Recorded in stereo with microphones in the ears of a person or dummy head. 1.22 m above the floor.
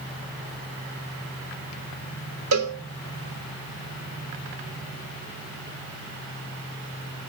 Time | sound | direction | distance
2.5 | a cowbell | 80° right | 3 m